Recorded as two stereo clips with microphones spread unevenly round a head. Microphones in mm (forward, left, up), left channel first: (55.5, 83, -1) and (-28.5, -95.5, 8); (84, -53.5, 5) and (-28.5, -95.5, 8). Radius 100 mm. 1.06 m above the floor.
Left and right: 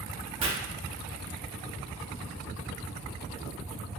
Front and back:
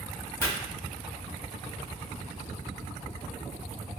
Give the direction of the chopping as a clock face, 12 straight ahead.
2 o'clock.